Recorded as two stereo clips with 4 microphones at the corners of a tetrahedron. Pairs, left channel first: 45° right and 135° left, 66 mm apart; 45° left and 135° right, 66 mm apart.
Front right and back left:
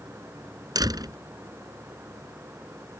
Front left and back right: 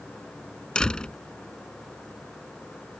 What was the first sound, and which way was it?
A door slam, 120° left.